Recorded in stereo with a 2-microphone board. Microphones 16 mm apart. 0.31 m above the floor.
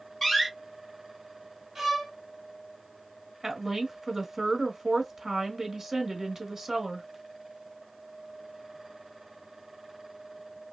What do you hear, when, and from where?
0.2 s a door slam: 30° left (ahead or behind), 1.9 m
1.8 s a violin: 30° right (ahead or behind), 1.8 m
3.4 s a woman speaking: 35° right (ahead or behind), 1.1 m